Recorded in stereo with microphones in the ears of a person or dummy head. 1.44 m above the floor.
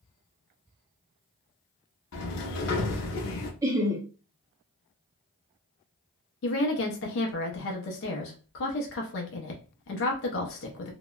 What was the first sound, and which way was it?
A sliding door, 65° left (ahead or behind).